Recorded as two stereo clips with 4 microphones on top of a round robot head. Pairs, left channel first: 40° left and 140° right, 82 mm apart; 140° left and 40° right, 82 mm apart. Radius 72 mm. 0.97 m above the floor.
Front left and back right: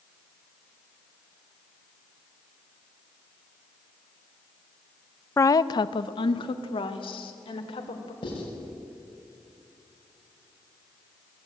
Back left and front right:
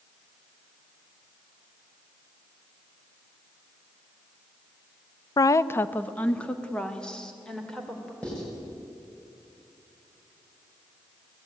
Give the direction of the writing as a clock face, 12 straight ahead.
10 o'clock.